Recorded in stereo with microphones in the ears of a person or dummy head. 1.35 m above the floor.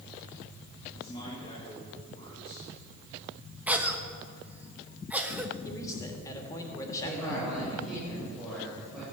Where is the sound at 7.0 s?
Centre (ahead or behind), 6.5 m.